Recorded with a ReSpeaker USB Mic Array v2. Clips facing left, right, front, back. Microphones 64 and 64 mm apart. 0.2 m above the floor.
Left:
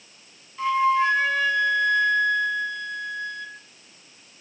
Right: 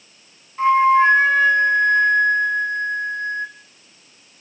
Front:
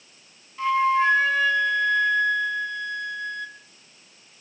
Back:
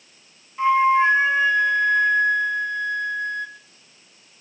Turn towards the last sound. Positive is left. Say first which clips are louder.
# right 7 dB, back 4 dB
turn(degrees=-125)